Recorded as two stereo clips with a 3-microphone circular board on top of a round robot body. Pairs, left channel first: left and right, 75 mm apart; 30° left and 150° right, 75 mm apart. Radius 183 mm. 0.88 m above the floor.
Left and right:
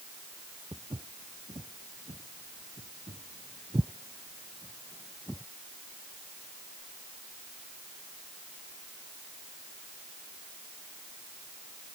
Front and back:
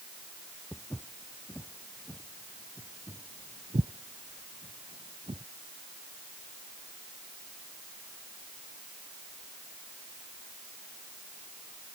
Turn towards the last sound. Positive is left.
turn(degrees=175)